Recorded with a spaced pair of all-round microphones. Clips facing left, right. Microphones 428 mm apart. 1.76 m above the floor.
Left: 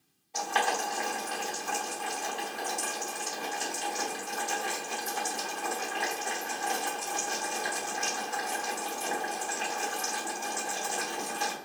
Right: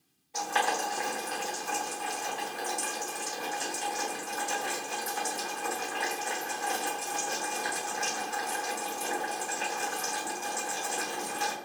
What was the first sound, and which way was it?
Boiling, centre (ahead or behind).